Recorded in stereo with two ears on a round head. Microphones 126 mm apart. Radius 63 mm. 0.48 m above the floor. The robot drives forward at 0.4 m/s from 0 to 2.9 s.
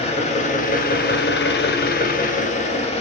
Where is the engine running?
45° left (ahead or behind), 0.8 m.